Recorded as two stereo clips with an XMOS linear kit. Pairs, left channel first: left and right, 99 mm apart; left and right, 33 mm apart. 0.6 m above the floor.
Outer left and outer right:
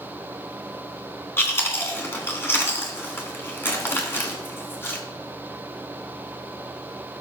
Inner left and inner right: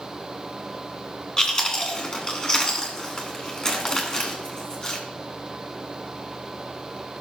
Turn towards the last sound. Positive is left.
turn(degrees=25)  # may be behind; listen again after turning